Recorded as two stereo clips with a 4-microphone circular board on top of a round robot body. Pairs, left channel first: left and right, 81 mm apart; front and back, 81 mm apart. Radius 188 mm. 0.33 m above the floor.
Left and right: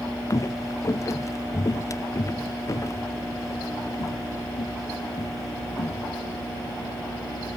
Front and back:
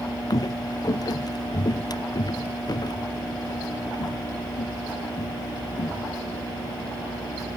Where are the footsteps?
40° left; by 6.1 s 35° left.